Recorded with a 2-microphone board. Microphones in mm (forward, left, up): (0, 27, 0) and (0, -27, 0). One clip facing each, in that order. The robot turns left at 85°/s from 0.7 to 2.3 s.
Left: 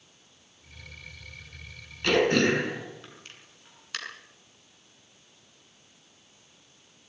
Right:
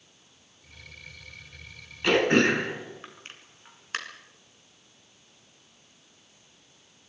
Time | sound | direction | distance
2.0 | throat clearing | 10° right (ahead or behind) | 5 m